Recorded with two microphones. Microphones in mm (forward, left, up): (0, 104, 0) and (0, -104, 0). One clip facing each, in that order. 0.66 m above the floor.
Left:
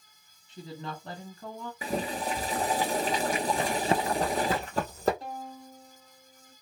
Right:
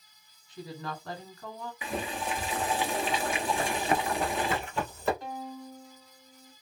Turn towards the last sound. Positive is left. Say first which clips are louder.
# right 2 dB
turn(degrees=35)  # may be behind; listen again after turning